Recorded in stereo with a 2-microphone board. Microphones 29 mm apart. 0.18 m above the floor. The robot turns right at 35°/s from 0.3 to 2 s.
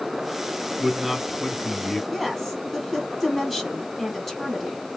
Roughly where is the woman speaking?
Centre.